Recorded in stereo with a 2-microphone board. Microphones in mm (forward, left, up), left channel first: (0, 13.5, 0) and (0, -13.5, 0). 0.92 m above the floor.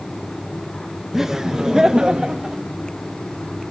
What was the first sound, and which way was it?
Laughter, 15° right (ahead or behind).